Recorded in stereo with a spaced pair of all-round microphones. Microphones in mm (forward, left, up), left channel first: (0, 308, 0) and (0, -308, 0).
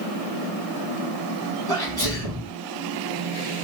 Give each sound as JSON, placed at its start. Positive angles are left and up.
{"t": 1.7, "sound": "a sneeze", "side_deg": -70, "distance_m": 3.0}